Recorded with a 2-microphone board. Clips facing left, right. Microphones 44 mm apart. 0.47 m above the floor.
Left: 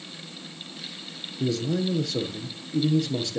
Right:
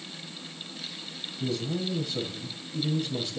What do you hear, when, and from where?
1.4 s a man speaking: 80° left, 7.5 m